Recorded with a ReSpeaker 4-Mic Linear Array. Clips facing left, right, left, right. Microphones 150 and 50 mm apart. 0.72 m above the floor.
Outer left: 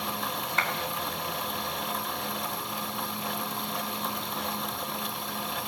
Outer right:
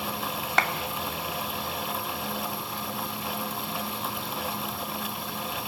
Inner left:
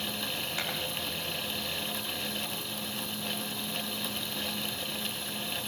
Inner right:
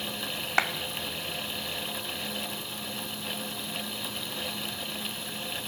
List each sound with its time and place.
0.6 s a clap: 70° right (ahead or behind), 1.5 m